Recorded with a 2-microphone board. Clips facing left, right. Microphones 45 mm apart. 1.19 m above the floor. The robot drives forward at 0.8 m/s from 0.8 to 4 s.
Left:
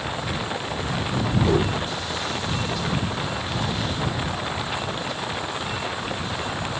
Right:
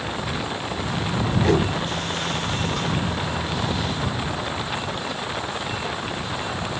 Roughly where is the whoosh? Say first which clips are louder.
Right 1 dB; right.